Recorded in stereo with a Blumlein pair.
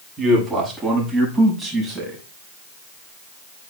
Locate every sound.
0.2 s a man speaking: 10° right, 7 m